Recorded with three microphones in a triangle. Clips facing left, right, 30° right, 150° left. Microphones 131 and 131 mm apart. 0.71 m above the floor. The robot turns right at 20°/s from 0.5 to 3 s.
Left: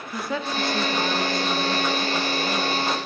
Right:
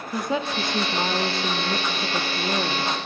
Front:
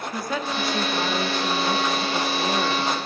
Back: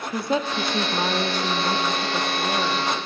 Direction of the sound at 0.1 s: 155° right.